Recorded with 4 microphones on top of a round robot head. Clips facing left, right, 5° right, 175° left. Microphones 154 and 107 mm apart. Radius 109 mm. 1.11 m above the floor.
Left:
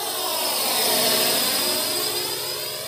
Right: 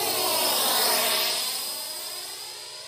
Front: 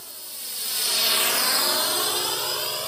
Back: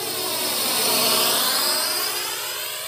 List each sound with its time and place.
0.0 s a drone: 165° right; by 2.9 s 55° left